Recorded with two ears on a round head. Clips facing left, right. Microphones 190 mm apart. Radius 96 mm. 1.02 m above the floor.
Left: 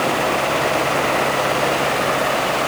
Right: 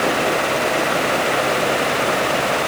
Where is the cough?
I don't hear a cough.